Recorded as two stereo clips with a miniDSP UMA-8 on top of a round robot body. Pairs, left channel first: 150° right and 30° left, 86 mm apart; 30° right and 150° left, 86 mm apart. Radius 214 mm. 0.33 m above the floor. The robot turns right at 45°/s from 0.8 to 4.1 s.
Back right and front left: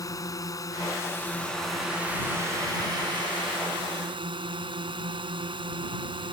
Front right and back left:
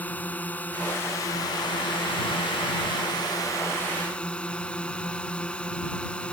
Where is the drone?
100° right; by 6.3 s 50° left.